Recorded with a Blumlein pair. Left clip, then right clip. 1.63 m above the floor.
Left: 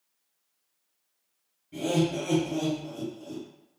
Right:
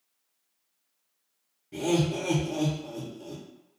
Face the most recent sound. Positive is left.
turn(degrees=-70)